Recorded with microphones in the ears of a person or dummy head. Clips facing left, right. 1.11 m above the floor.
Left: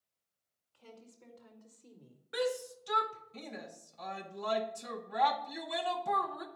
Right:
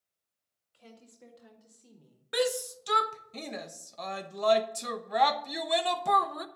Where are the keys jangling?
No keys jangling in this recording.